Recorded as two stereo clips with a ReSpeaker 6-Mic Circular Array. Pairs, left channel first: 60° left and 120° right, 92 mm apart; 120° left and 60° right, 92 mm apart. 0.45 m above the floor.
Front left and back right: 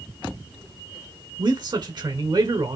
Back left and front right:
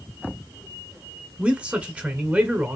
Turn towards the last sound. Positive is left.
turn(degrees=-130)